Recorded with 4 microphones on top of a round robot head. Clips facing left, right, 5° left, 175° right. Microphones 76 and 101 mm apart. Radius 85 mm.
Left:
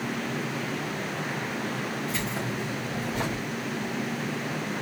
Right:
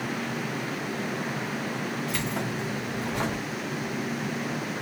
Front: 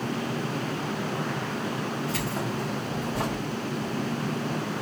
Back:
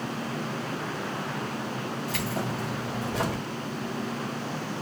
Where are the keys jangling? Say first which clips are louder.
Right 1 dB, front 1 dB; 130° right, 2.5 m; by 3.4 s 155° right, 2.5 m.